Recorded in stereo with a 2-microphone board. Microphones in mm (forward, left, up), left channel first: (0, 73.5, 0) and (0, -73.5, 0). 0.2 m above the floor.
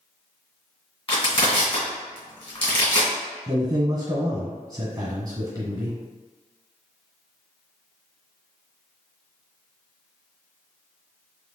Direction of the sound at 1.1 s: 45° left (ahead or behind).